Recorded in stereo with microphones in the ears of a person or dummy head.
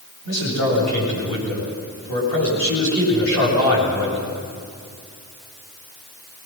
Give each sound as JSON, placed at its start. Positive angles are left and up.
{"t": 0.2, "sound": "a man speaking", "side_deg": 70, "distance_m": 9.5}